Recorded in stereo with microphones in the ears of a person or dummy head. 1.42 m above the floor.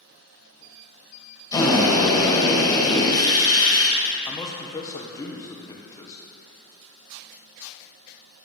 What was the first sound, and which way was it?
A drill, 10° left (ahead or behind).